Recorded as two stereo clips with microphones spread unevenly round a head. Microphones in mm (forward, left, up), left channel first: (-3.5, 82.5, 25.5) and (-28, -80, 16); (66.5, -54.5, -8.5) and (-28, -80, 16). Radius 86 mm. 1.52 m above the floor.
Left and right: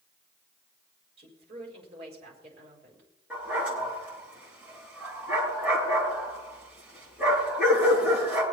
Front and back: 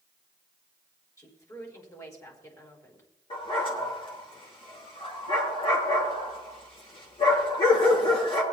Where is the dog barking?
15° right, 7 m.